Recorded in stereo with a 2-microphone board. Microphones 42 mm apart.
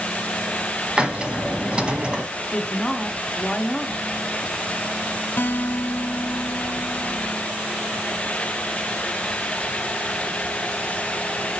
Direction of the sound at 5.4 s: 65° left (ahead or behind).